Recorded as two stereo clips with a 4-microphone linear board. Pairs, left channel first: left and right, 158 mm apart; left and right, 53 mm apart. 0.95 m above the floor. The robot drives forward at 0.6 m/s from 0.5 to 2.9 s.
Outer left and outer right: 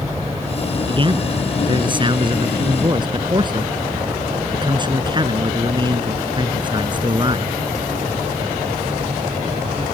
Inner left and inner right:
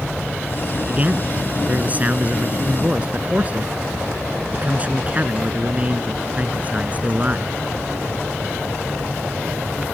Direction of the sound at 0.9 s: 30° right (ahead or behind).